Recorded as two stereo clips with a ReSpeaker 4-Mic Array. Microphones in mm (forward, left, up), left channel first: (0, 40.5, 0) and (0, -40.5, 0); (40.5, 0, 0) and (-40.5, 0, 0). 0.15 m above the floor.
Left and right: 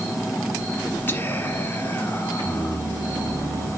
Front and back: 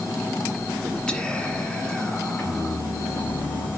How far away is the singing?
About 4.5 m.